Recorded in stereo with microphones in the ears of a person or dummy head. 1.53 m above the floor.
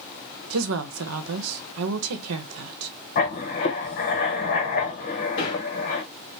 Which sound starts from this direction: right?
A woman speaking, at 0.5 s.